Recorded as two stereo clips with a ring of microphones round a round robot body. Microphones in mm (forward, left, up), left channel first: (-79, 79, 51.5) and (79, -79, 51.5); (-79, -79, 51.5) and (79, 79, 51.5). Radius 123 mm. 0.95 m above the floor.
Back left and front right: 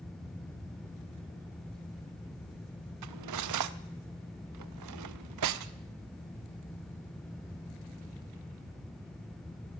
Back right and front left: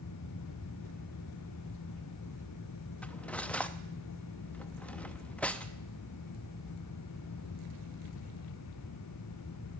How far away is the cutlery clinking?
About 0.5 m.